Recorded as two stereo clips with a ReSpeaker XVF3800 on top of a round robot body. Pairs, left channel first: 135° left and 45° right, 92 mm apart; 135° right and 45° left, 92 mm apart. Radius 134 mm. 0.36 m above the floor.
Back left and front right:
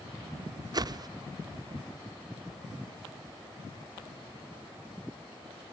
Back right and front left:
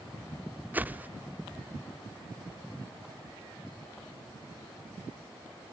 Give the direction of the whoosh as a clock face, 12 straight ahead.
1 o'clock.